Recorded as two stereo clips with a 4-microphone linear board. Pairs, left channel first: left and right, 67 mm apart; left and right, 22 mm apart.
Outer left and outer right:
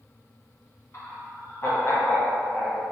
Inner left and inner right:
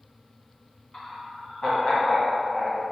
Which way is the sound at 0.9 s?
40° left (ahead or behind).